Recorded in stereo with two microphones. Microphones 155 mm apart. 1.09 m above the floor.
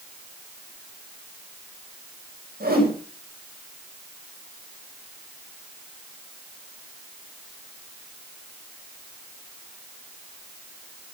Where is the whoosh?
80° right, 5.5 m.